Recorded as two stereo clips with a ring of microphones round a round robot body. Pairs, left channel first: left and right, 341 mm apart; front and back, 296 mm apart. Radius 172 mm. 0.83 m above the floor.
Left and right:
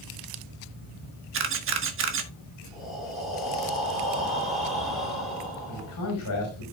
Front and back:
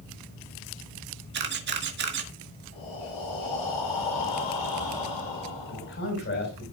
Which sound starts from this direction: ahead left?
A man speaking, at 5.7 s.